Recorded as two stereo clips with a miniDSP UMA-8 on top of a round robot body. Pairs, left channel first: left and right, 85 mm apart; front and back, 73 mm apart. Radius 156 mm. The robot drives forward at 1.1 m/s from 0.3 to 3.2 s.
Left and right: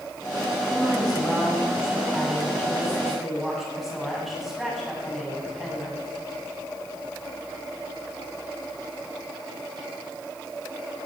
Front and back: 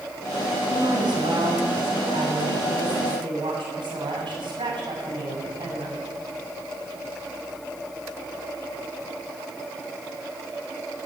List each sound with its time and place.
0.7 s a woman speaking: 175° right, 4.5 m